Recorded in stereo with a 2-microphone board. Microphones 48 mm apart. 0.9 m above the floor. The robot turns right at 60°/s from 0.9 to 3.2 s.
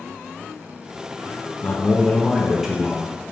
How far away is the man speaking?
About 0.7 m.